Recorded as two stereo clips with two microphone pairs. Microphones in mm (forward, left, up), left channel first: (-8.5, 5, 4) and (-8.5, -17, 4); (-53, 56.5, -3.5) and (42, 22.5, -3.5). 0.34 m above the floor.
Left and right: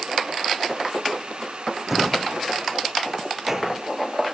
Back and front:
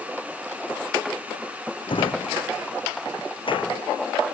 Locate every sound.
1.9 s a drawer: 165° right